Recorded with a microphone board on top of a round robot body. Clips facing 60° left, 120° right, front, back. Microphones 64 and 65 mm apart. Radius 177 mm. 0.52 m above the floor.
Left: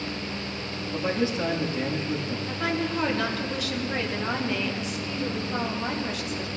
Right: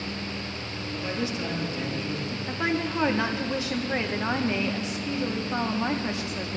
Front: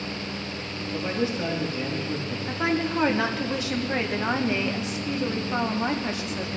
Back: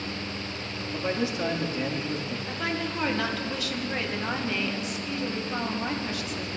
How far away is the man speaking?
About 1.9 m.